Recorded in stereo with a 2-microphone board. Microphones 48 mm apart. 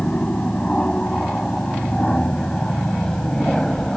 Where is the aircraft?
20° left (ahead or behind); by 4.0 s 10° left (ahead or behind).